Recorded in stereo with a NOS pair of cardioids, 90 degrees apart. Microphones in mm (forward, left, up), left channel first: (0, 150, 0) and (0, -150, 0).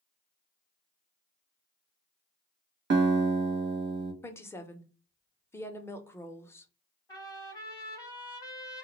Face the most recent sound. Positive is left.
turn(degrees=10)